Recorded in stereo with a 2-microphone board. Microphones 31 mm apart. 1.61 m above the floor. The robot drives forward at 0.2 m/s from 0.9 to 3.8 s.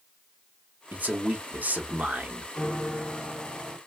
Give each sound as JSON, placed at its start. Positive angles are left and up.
{"t": 0.9, "sound": "a man speaking", "side_deg": -75, "distance_m": 1.0}
{"t": 2.5, "sound": "a piano", "side_deg": 15, "distance_m": 2.0}